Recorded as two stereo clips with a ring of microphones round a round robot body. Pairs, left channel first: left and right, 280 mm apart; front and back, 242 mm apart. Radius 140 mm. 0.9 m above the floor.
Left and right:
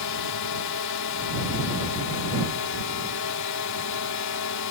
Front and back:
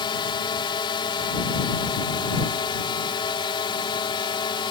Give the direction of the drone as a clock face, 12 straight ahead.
10 o'clock.